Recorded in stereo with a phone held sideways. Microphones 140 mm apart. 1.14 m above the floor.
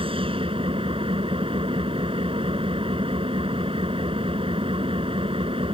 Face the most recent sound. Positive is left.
turn(degrees=-40)  # may be behind; listen again after turning